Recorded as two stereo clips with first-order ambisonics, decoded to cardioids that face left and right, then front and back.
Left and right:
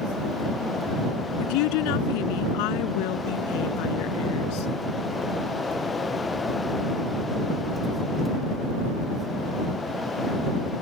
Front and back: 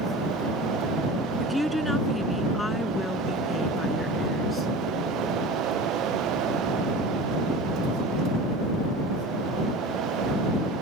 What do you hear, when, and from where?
1.4 s a woman speaking: 90° left; by 4.7 s 70° left